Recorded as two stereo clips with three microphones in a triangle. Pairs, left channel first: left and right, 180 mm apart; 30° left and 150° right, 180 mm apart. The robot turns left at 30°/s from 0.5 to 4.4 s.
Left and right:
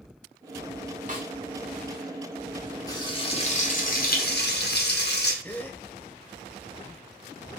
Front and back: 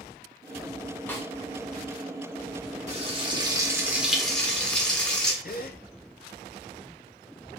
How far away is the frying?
About 1.1 m.